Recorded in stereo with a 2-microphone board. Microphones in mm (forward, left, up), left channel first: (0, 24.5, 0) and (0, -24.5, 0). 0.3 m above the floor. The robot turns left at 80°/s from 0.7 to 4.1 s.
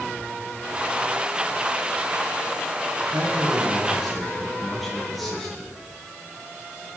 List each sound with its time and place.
3.1 s a man speaking: 100° right, 6 m; by 5.7 s straight behind, 6 m